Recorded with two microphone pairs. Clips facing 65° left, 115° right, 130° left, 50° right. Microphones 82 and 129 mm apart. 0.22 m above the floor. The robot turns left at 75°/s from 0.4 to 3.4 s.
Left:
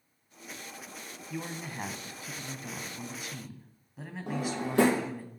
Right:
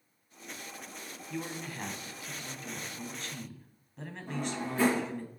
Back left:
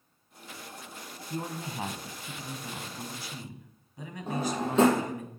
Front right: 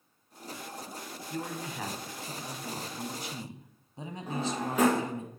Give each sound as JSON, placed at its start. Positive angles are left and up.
{"t": 1.3, "sound": "a man speaking", "azimuth_deg": 145, "distance_m": 1.1}
{"t": 4.3, "sound": "a drawer", "azimuth_deg": 70, "distance_m": 2.0}